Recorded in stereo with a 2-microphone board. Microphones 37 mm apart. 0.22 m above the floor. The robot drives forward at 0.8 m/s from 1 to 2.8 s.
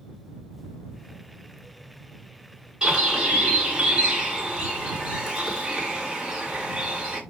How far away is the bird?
About 3 m.